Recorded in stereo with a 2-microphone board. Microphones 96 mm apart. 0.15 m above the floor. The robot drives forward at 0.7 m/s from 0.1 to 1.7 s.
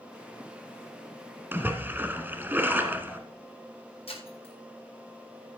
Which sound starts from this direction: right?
A splash, at 1.5 s.